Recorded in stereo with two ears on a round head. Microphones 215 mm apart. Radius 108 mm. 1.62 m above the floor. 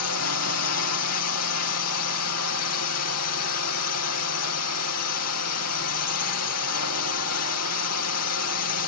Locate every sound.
0.0 s a drone: 70° left (ahead or behind)